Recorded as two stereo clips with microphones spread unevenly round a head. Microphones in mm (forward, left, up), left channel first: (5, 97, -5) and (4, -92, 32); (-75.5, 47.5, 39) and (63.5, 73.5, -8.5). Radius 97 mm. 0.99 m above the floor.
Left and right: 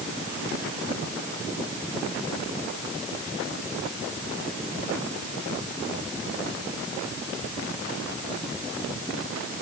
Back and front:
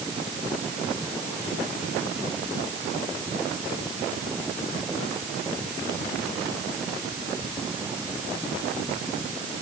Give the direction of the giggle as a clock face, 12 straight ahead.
I don't hear a giggle.